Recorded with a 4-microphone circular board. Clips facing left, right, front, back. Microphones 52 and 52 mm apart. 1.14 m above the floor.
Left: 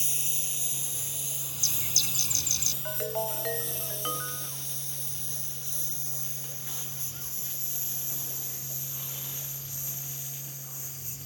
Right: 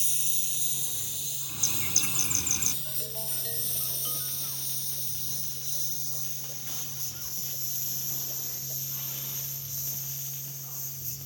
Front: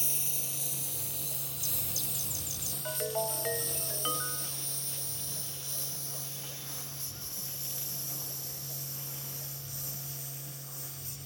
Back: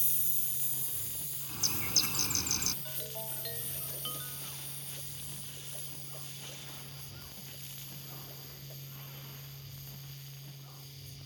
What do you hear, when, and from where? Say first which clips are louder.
0.0 s a lawn mower: left 1 dB, front 6 dB; 30° left; by 11.2 s 20° left
1.5 s a bird: right 1 dB, back 4 dB; 150° right
2.9 s a ringtone: left 11 dB, front 11 dB; 50° left